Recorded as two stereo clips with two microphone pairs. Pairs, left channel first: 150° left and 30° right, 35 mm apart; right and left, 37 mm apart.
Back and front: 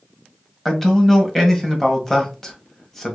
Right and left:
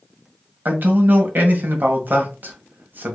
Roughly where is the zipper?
I don't hear a zipper.